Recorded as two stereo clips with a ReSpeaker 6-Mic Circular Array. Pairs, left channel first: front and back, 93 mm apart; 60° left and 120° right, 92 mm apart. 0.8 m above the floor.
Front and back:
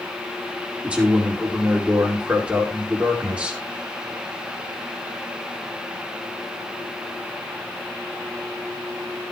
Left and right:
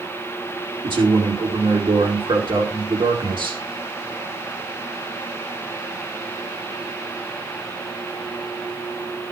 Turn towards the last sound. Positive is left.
turn(degrees=-105)